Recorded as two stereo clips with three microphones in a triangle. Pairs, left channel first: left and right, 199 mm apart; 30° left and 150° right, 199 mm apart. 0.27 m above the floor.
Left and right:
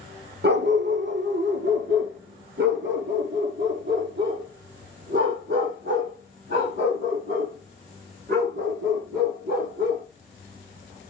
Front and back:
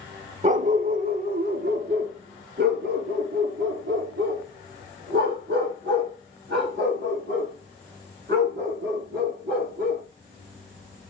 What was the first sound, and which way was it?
A dog barking, 100° right.